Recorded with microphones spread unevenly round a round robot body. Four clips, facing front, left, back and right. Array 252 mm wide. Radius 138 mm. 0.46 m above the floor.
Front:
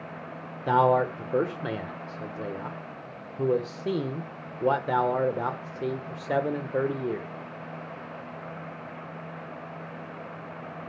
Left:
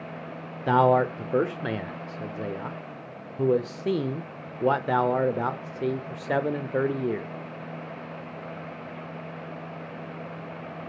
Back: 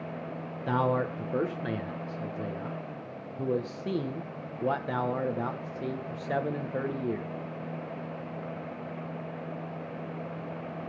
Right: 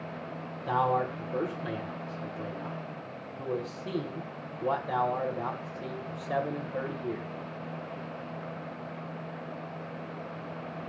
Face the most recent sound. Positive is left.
turn(degrees=70)